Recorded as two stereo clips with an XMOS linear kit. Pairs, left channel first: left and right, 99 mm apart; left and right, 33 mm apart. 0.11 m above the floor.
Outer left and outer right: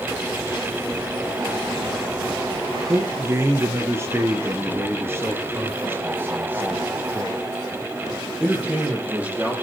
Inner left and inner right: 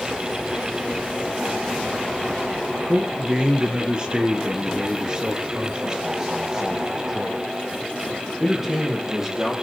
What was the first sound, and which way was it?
A man speaking, 25° right (ahead or behind).